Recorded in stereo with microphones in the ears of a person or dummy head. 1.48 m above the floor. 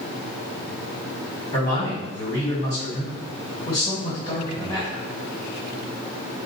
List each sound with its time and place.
1.5 s a man speaking: 25° left (ahead or behind), 1.6 m